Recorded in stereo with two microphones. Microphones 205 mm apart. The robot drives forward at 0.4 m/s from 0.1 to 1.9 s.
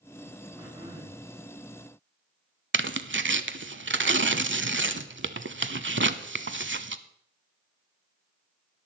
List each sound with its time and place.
0.6 s throat clearing: 30° right (ahead or behind), 6 m
2.7 s tearing paper: 65° right (ahead or behind), 0.6 m